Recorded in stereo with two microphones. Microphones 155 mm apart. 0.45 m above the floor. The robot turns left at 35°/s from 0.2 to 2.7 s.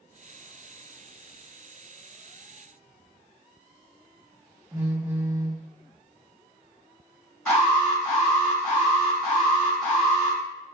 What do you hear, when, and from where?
4.7 s a phone buzzing: 15° right (ahead or behind), 0.7 m
7.5 s an alarm: 15° left (ahead or behind), 1.9 m